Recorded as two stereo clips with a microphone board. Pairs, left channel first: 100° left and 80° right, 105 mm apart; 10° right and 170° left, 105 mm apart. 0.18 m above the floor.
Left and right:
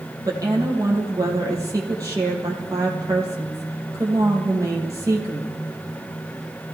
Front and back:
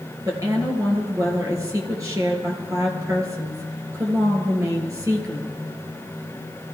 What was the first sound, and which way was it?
A woman speaking, 135° right.